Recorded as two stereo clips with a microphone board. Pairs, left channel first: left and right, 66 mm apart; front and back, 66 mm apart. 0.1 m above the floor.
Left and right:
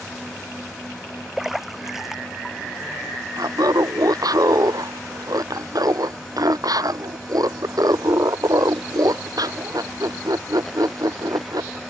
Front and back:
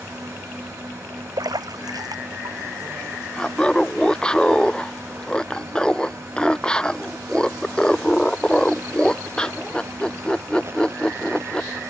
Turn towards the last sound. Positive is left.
turn(degrees=-75)